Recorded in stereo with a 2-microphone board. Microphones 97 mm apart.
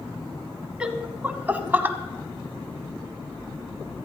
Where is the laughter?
10° right (ahead or behind), 1.2 m; by 2.0 s 20° right (ahead or behind), 1.1 m.